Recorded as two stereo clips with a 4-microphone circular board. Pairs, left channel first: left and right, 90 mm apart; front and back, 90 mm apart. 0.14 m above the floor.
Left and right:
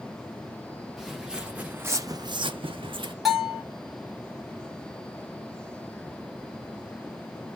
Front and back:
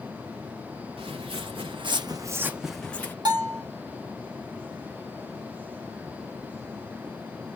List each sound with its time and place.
1.0 s footsteps: straight behind, 1.0 m; by 3.1 s 70° right, 0.7 m
3.2 s a bell: straight behind, 1.3 m